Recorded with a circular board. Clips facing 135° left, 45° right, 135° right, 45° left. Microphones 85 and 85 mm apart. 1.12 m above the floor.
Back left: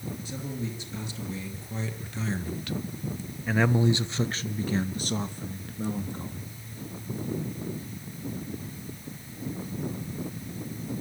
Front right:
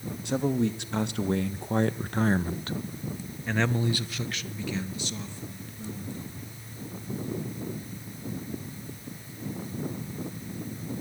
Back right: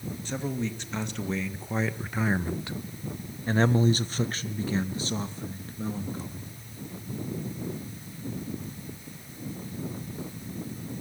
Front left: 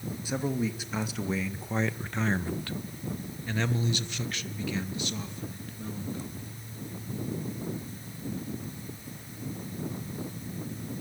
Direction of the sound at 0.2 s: 35° right.